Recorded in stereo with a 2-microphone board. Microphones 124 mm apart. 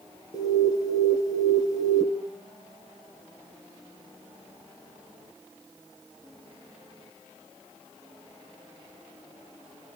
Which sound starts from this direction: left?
An alarm, at 0.3 s.